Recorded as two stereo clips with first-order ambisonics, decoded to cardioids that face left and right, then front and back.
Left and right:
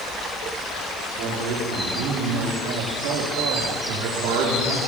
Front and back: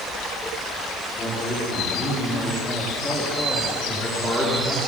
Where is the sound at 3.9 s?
85° right, 5 m.